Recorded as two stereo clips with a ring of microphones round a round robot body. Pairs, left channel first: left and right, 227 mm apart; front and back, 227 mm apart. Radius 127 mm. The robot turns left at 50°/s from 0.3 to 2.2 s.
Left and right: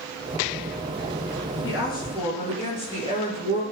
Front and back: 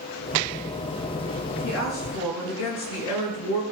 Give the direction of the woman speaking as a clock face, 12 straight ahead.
10 o'clock.